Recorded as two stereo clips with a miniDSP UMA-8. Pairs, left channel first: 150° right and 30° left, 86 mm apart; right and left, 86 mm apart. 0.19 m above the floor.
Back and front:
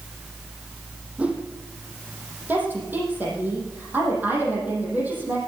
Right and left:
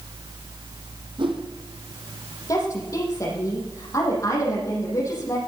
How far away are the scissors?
I don't hear scissors.